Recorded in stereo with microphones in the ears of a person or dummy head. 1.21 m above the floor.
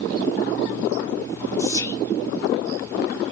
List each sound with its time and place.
1.6 s whispering: 10° left (ahead or behind), 0.6 m